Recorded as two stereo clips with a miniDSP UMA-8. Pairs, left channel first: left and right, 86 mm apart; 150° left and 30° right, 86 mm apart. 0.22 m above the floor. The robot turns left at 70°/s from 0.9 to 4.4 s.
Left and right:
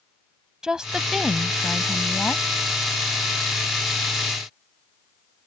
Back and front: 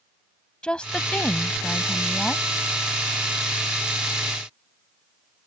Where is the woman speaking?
155° right; by 2.4 s 95° left.